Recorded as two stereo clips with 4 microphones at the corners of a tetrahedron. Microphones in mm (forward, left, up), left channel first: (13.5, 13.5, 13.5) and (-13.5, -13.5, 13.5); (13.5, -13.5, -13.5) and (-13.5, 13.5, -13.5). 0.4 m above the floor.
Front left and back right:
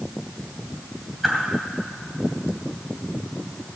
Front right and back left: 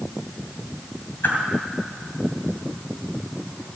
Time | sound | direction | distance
1.2 | a whoosh | 45° right | 2.5 m